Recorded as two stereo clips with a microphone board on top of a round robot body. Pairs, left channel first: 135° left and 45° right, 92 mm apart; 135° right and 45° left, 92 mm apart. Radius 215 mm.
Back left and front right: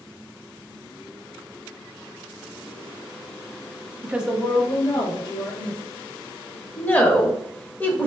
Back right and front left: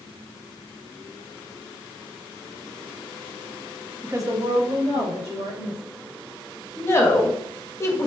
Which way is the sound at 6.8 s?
170° right.